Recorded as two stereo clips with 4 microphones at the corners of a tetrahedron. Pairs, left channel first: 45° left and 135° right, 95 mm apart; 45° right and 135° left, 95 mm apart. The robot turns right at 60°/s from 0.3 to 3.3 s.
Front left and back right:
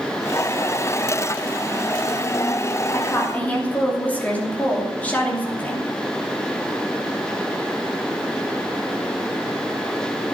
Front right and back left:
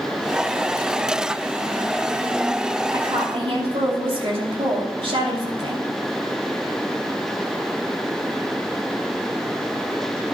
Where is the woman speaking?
95° left, 2.5 m; by 5.8 s 120° left, 2.5 m.